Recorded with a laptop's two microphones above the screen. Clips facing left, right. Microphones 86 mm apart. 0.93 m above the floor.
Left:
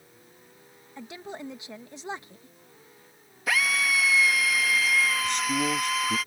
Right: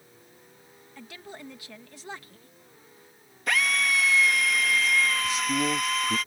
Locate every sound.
1.0 s a woman speaking: 20° left (ahead or behind)
3.5 s a drill: 5° left (ahead or behind)
5.2 s a man speaking: 5° right (ahead or behind)